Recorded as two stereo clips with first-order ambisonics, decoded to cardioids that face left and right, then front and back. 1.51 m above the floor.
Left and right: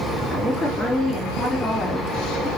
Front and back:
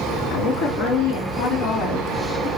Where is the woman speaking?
5° left, 2 m.